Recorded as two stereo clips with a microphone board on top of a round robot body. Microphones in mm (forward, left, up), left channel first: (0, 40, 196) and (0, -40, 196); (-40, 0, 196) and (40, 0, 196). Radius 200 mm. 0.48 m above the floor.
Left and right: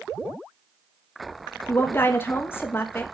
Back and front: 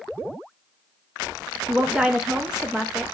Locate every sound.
1.7 s a woman speaking: 70° left, 0.7 m